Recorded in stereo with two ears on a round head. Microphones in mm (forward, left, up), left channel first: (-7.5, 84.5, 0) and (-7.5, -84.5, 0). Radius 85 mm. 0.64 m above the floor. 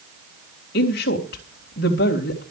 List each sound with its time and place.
0.7 s a woman speaking: 60° left (ahead or behind), 3 m